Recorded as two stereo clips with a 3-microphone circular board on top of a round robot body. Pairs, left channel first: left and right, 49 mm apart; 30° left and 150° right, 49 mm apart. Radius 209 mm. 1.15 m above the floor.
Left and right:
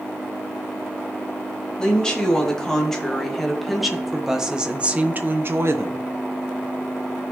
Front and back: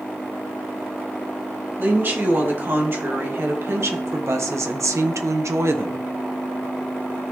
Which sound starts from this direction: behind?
A woman speaking, at 1.8 s.